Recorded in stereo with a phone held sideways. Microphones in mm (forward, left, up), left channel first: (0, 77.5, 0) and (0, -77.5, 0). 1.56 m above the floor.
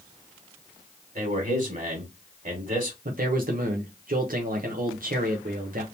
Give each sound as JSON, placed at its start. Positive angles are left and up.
{"t": 1.1, "sound": "a man speaking", "side_deg": -55, "distance_m": 1.8}
{"t": 3.0, "sound": "a man speaking", "side_deg": -65, "distance_m": 0.7}